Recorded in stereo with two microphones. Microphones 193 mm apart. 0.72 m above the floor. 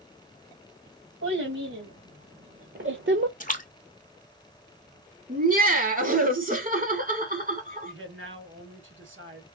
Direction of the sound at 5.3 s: 45° right (ahead or behind).